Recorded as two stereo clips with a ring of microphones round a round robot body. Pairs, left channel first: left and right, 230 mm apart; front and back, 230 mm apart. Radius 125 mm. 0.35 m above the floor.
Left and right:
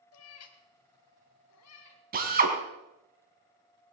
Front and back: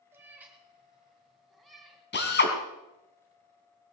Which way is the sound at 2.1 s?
40° right.